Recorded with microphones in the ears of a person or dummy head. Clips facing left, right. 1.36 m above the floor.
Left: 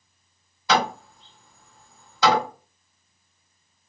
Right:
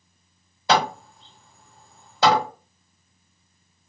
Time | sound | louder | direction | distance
0.7 | hammering | right 1 dB | 30° right (ahead or behind) | 1.3 m